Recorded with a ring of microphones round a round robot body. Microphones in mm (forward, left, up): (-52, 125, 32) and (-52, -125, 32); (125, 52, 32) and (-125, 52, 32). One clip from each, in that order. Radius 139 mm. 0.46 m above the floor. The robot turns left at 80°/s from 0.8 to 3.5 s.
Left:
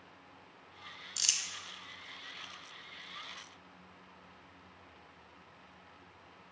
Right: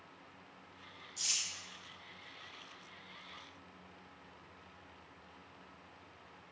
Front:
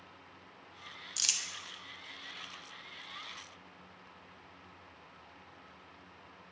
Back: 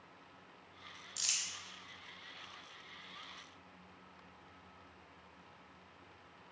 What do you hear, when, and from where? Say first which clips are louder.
1.2 s crumpling: left 4 dB, front 4 dB; 65° left, 0.6 m; by 1.4 s 45° left, 0.6 m